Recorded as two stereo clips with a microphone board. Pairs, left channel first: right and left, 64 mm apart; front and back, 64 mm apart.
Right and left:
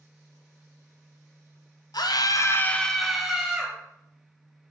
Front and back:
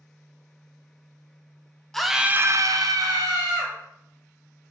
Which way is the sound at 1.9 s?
85° right.